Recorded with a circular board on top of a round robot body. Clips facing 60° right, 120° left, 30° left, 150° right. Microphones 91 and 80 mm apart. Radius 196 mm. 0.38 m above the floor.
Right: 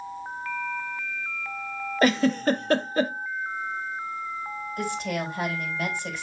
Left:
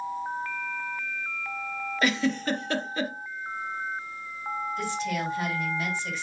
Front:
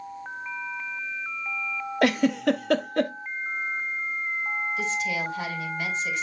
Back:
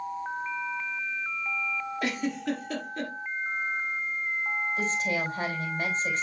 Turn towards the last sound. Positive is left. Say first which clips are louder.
# right 4 dB, even
turn(degrees=-95)